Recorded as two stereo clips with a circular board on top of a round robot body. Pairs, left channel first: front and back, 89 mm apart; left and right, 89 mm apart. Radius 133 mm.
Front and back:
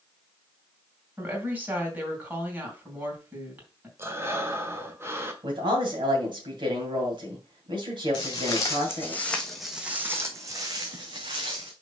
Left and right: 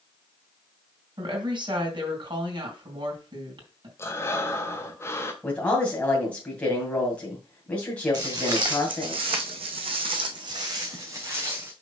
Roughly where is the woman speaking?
Right.